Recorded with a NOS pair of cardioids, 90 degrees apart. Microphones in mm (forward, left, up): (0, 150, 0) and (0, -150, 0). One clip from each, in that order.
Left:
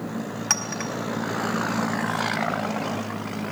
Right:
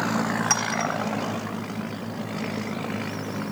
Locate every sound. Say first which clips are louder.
0.5 s a clink: even; 20° left, 4 m